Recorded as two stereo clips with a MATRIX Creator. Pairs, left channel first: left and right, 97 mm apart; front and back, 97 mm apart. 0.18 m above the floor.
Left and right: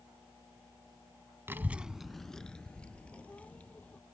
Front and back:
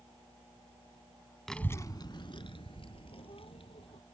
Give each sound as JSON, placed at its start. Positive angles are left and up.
{"t": 1.5, "sound": "a child speaking", "azimuth_deg": -85}